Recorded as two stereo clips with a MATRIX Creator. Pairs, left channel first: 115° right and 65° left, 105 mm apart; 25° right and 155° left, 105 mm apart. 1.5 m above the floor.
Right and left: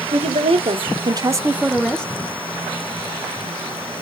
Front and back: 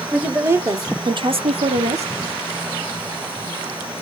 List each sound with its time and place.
0.1 s a woman speaking: 85° left, 1.6 m; by 2.1 s 175° left, 1.1 m